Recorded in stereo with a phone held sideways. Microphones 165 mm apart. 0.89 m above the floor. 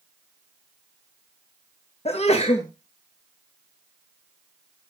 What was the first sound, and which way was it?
A sneeze, 40° left (ahead or behind).